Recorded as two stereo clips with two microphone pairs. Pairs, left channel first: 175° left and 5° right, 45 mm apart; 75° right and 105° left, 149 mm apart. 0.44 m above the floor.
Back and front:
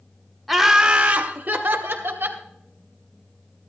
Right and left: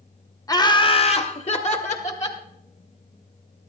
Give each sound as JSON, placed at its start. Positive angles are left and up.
{"t": 0.5, "sound": "laughter", "azimuth_deg": -95, "distance_m": 0.7}